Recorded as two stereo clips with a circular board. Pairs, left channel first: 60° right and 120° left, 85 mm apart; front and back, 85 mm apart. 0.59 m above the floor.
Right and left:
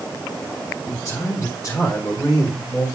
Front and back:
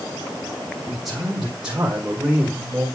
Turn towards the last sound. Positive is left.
turn(degrees=-105)